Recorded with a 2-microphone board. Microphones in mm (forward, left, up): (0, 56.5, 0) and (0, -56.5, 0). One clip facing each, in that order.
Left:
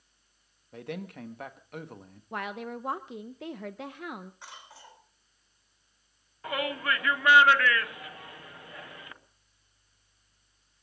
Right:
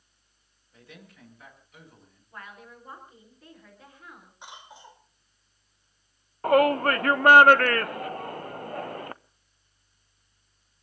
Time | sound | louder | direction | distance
0.7 | a man speaking | left 13 dB | 65° left (ahead or behind) | 1.7 m
2.3 | a woman speaking | left 10 dB | 80° left | 1.0 m
4.4 | a cough | right 3 dB | 20° right (ahead or behind) | 4 m
6.4 | a shout | right 11 dB | 50° right (ahead or behind) | 0.7 m